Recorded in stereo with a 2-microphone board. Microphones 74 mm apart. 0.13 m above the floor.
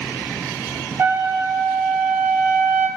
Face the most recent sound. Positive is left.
turn(degrees=-35)  # may be behind; listen again after turning